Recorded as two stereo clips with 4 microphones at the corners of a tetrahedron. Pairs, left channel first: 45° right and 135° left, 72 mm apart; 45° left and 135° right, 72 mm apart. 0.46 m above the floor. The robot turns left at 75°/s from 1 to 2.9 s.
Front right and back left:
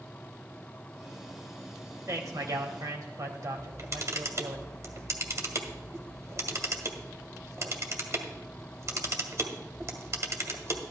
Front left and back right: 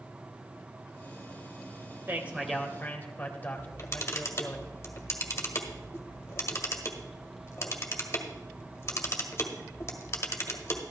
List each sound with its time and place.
2.1 s a man speaking: 170° left, 1.7 m; by 4.6 s 110° left, 1.7 m
3.6 s a camera shutter: 95° left, 1.5 m